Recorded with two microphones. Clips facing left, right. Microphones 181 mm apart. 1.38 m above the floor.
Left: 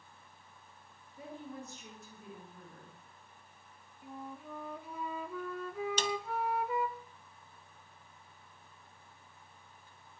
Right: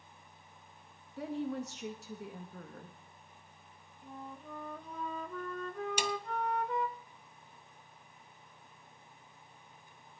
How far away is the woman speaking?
About 2.0 m.